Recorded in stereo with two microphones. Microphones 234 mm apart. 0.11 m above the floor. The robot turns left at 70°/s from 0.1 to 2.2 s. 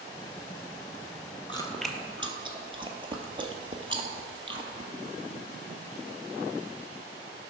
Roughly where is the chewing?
Left.